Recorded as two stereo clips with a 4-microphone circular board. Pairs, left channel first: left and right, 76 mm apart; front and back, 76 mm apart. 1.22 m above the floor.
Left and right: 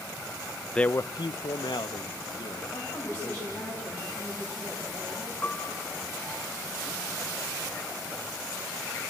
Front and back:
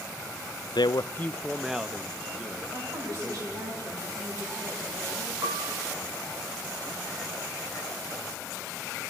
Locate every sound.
0.8 s a man speaking: 10° left, 0.6 m; by 3.7 s 120° left, 3 m
2.7 s a woman speaking: 160° left, 9 m
5.4 s a piano: 155° left, 1.9 m